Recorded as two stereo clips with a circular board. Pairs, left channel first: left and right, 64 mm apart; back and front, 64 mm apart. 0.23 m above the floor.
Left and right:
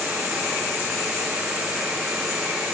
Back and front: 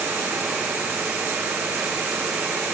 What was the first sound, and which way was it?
Only background noise.